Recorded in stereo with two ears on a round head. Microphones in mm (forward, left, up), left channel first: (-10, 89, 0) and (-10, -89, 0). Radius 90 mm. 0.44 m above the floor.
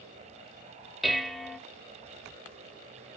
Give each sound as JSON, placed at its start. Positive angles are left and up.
{"t": 1.0, "sound": "dishes clattering", "side_deg": 0, "distance_m": 1.0}